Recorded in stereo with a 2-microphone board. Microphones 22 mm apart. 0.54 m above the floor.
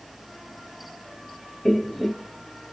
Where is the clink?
No clink in this recording.